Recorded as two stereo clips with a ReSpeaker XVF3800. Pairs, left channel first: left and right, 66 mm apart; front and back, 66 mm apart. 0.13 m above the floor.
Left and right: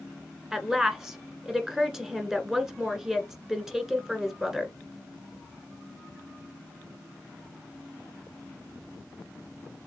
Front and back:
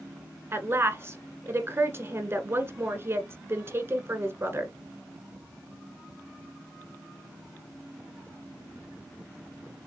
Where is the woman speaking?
170° right, 1.3 m.